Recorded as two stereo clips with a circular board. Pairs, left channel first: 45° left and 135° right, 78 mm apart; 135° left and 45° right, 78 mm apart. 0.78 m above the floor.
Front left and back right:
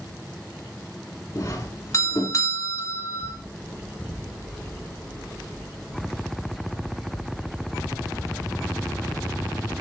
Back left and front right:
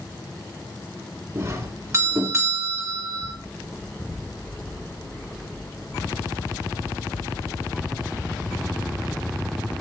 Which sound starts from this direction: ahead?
A doorbell, at 1.4 s.